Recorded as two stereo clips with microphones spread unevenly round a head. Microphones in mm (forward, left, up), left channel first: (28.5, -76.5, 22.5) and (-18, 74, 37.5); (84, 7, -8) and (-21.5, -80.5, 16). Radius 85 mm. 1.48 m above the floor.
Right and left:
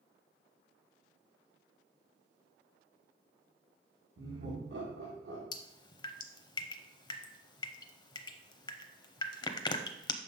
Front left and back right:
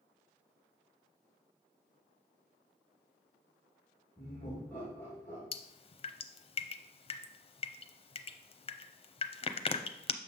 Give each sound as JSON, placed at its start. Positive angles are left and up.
{"t": 4.2, "sound": "laughter", "azimuth_deg": 120, "distance_m": 1.5}
{"t": 5.5, "sound": "dripping", "azimuth_deg": -10, "distance_m": 0.5}